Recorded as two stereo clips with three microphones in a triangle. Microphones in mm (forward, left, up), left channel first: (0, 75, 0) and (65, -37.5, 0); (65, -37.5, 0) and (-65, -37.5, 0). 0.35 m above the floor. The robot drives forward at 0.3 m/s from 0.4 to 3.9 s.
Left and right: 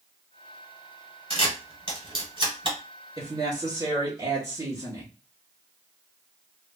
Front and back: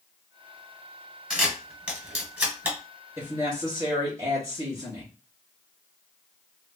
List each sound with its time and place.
1.3 s a camera shutter: 95° right, 2.0 m; by 2.8 s 110° right, 2 m
3.2 s a woman speaking: 110° right, 2.0 m; by 5.1 s 120° right, 2 m